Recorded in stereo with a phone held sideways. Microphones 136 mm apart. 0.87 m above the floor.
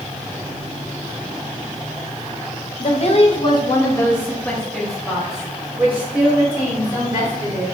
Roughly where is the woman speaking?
Left.